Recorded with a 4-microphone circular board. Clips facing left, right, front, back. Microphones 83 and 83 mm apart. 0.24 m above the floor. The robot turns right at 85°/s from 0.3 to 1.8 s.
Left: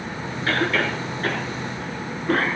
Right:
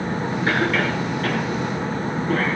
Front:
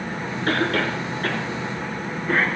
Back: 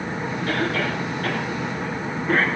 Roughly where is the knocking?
No knocking in this recording.